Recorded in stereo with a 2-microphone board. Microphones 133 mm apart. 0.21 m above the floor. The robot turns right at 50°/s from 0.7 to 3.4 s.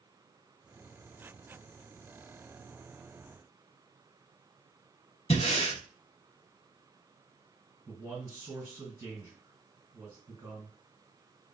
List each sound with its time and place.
5.3 s breathing: 50° left (ahead or behind), 0.6 m
7.9 s a man speaking: 20° right (ahead or behind), 2 m